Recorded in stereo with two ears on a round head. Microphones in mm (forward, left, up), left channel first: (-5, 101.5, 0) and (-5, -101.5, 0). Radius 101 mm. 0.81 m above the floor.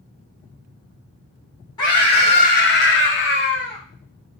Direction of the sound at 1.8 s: 20° left (ahead or behind).